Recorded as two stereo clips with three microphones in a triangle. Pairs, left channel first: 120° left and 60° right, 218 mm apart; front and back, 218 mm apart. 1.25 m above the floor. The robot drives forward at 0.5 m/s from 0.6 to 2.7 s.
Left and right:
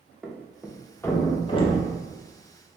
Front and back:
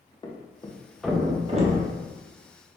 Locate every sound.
0.2 s a thud: 25° left, 0.5 m; by 1.9 s 170° left, 0.6 m